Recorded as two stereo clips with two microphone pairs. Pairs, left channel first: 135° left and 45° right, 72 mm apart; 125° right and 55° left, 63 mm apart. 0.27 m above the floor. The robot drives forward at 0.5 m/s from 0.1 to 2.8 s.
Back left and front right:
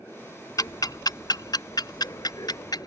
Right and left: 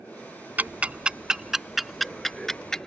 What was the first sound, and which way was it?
Ticking, 115° left.